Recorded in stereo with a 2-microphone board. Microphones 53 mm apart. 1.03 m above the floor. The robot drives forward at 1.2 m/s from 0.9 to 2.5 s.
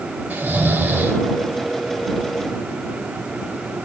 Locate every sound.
0.3 s snoring: 30° right (ahead or behind), 3.5 m; by 1.2 s 35° right (ahead or behind), 3 m